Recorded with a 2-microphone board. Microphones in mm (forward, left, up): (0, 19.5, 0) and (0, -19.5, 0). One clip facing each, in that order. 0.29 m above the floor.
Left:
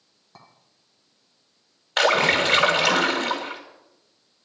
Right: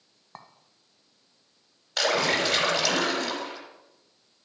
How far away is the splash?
About 1.7 m.